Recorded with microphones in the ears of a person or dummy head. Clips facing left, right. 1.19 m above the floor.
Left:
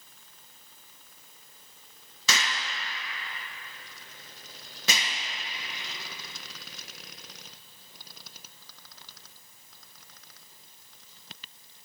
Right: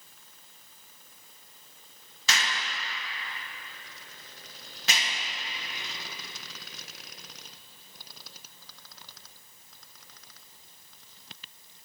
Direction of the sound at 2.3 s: 75° left (ahead or behind).